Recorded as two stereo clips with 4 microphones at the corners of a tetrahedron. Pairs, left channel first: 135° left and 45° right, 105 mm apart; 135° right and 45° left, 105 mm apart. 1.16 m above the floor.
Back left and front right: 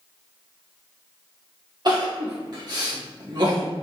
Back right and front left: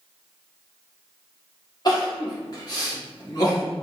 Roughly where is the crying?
Right.